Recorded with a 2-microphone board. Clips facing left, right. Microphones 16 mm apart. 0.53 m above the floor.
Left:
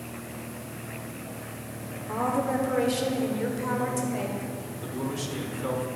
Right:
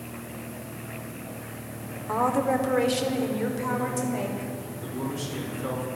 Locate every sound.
2.1 s a woman speaking: 35° right (ahead or behind), 0.9 m; by 4.5 s centre (ahead or behind), 1.8 m
4.8 s a man speaking: 20° left (ahead or behind), 1.3 m